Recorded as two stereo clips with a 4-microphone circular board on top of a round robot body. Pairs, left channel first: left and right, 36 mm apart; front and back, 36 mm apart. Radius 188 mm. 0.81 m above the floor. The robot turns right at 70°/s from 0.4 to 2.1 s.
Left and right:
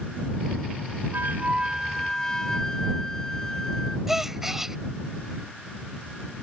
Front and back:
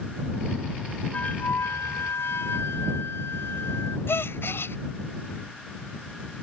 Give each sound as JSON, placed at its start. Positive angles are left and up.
{"t": 1.1, "sound": "a flute", "azimuth_deg": -55}
{"t": 4.1, "sound": "a gasp", "azimuth_deg": -10}